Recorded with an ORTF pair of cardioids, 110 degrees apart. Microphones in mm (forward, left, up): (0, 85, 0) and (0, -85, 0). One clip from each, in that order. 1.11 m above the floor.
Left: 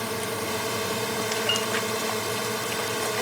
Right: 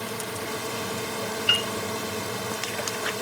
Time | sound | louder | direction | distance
0.0 | a drone | left 3 dB | 20° left | ?
1.5 | a piano | right 6 dB | 30° right | ?